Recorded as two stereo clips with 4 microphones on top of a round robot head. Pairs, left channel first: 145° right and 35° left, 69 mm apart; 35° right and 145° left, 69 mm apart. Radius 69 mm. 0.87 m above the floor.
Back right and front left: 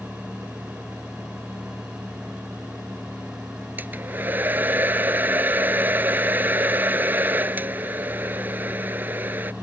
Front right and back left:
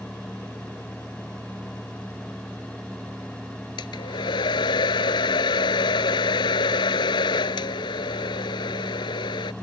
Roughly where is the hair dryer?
Ahead right.